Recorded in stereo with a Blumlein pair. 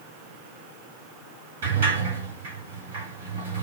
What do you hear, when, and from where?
1.6 s a sliding door: 60° right, 2.5 m